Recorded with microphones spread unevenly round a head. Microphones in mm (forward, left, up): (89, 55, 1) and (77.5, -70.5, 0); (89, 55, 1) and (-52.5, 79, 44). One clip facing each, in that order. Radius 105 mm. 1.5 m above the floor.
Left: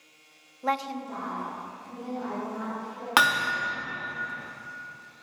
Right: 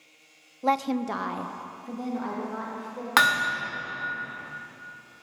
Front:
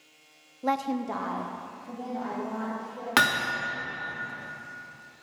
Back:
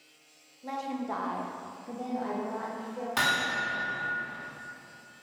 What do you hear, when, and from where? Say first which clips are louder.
0.6 s a woman speaking: right 5 dB, front 6 dB; 25° right, 0.6 m; by 3.1 s 130° right, 3 m
3.2 s hammering: even, front 7 dB; 5° left, 1.7 m